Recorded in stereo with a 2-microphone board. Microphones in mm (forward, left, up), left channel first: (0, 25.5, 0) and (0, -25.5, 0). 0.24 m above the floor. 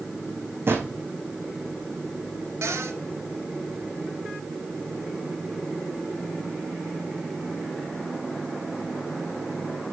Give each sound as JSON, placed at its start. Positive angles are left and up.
{"t": 0.7, "sound": "a drawer", "side_deg": -55, "distance_m": 3.0}
{"t": 2.6, "sound": "a cupboard door", "side_deg": -75, "distance_m": 3.5}